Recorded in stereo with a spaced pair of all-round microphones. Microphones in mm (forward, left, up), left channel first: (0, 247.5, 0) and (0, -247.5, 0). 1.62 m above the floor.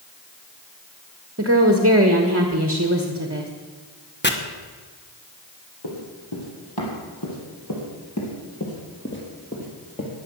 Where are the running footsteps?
55° left (ahead or behind), 4 m; by 10.1 s 10° left (ahead or behind), 3 m.